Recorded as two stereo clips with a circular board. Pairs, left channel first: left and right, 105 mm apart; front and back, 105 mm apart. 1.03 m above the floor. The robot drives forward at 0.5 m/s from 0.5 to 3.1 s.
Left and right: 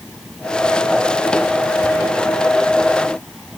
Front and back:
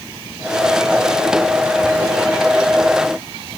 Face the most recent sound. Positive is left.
No sound to turn to.